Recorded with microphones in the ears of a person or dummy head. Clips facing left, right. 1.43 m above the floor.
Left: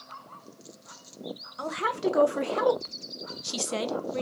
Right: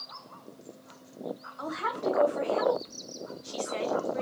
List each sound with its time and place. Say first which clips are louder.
1.6 s a woman speaking: left 4 dB; 40° left (ahead or behind), 1.3 m; by 4.2 s 50° left (ahead or behind), 1.0 m